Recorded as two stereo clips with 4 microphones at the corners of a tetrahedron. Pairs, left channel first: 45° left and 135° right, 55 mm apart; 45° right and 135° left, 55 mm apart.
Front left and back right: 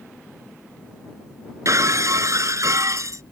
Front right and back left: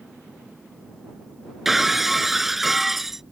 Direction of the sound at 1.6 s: 140° right.